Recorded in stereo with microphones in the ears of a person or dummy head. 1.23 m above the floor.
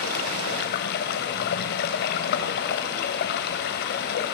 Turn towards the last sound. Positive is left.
turn(degrees=60)  # may be behind; listen again after turning